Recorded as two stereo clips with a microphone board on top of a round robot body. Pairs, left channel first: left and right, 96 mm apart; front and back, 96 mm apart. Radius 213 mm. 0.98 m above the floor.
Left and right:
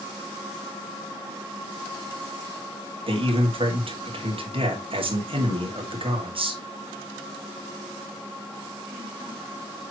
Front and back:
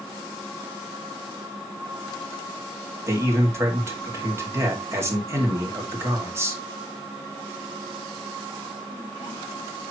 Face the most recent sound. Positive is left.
turn(degrees=-115)